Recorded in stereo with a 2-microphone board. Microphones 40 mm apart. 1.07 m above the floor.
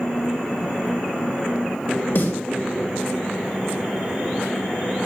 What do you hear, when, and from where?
2.1 s a snare drum: 70° left (ahead or behind), 3.5 m